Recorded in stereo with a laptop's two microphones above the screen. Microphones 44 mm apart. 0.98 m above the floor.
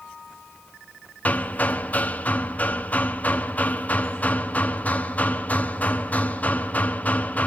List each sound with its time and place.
1.2 s hammering: 35° left (ahead or behind), 1.2 m